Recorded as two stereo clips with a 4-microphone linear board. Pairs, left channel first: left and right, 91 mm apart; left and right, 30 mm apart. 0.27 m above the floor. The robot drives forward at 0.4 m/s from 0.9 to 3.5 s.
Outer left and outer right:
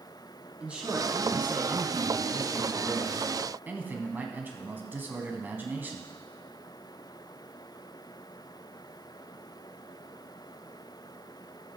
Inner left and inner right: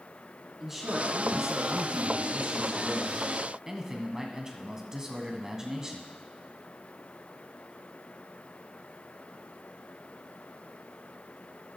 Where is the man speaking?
15° right (ahead or behind), 2.5 m; by 6.1 s 20° right (ahead or behind), 1.7 m.